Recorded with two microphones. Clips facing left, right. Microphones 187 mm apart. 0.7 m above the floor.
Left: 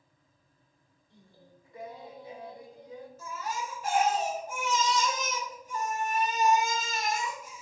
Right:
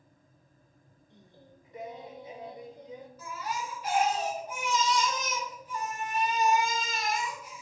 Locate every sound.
1.1 s singing: 20° right (ahead or behind), 0.6 m
3.2 s a baby crying: 50° left (ahead or behind), 1.3 m